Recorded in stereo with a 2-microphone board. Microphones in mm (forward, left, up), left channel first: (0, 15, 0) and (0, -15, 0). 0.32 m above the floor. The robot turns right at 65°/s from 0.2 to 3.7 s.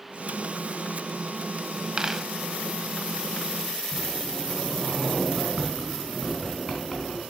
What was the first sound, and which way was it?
A dropped coin, 30° right (ahead or behind).